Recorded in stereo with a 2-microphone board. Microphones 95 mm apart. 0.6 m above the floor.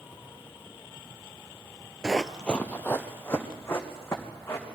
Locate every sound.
2.0 s running footsteps: 5° right (ahead or behind), 0.6 m; by 4.7 s 25° left (ahead or behind), 3.5 m